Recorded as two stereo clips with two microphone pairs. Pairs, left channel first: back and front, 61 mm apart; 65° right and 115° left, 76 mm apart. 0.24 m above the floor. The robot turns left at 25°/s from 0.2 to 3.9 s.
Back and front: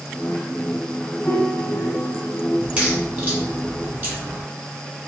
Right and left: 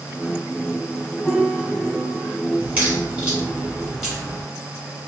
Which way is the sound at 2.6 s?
60° left.